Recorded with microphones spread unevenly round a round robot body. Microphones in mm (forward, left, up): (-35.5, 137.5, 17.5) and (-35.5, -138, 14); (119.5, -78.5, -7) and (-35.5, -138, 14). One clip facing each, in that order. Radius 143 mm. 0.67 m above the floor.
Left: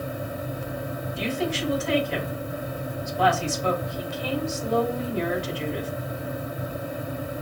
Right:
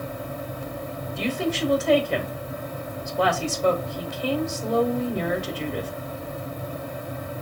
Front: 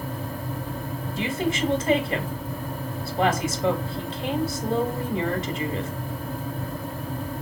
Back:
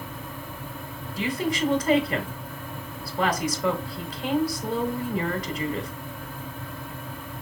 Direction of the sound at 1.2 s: 40° right.